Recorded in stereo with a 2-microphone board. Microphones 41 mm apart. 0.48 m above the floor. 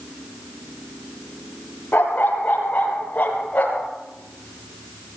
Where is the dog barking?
45° left (ahead or behind), 4.5 m; by 3.9 s 35° left (ahead or behind), 3.5 m.